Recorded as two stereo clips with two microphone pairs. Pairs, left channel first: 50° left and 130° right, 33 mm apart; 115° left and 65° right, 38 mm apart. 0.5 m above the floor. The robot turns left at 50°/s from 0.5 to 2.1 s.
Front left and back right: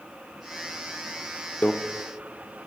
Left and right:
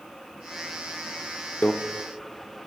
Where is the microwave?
75° left, 0.7 m; by 1.7 s 70° left, 0.7 m.